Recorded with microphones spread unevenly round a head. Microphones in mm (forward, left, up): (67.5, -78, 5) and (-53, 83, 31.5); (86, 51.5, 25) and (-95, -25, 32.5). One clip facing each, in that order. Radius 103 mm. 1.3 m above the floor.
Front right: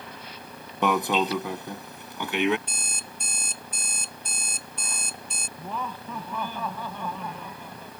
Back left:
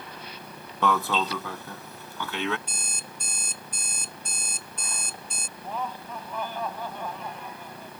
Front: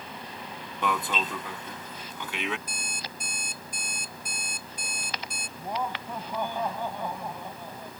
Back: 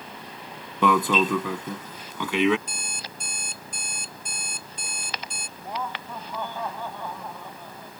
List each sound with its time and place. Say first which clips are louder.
0.8 s an alarm: front right 2 dB, back 9 dB; 130° right
2.7 s an alarm clock: front right 1 dB, even; 90° right
5.6 s laughter: back left 1 dB, front 1 dB; 55° right